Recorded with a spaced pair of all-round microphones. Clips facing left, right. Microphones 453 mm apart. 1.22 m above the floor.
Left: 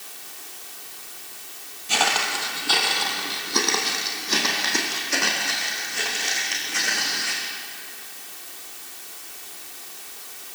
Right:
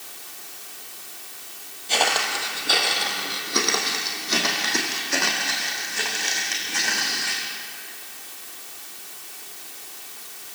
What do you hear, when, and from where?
1.9 s footsteps: 25° left (ahead or behind), 2.5 m; by 7.4 s 10° right (ahead or behind), 6 m